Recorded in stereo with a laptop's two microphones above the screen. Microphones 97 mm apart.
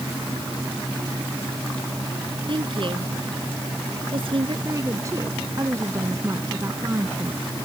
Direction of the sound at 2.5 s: 55° right (ahead or behind).